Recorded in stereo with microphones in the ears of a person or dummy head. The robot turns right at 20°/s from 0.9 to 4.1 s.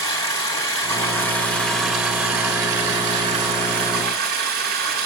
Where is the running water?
160° left, 7.5 m; by 5.1 s 135° right, 7.5 m.